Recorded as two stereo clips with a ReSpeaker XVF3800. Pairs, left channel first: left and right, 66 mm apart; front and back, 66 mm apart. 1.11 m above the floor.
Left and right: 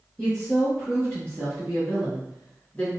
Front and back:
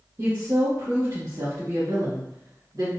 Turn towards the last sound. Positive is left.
turn(degrees=160)